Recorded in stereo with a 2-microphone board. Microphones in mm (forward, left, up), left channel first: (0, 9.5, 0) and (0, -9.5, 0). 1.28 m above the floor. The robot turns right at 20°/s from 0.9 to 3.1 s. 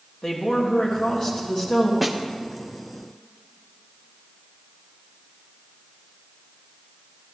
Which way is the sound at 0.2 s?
40° left (ahead or behind).